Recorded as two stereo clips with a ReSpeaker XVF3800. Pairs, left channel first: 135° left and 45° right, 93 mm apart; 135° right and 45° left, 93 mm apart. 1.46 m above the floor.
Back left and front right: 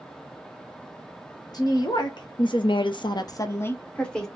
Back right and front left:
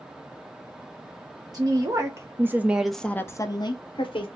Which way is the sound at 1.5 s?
90° left.